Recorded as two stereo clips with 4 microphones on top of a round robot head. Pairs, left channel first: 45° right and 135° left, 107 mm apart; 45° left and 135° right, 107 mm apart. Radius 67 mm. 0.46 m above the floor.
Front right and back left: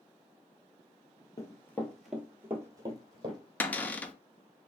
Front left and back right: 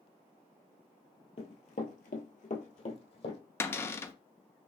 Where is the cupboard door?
10° left, 0.5 m.